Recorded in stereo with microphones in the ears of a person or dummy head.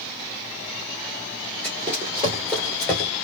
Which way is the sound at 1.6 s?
30° right (ahead or behind).